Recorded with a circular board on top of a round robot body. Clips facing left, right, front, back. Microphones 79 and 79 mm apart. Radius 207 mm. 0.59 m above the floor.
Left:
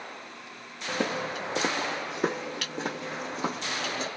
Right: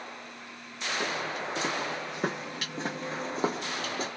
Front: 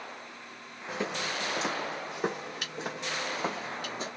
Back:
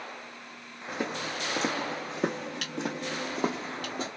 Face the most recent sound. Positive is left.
turn(degrees=-140)